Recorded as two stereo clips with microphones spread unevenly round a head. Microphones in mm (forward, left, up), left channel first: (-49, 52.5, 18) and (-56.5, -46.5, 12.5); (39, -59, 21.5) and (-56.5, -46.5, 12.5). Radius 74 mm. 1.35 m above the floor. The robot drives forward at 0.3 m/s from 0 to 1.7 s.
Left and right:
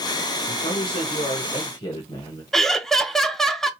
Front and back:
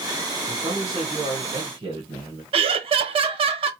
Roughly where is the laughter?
Behind.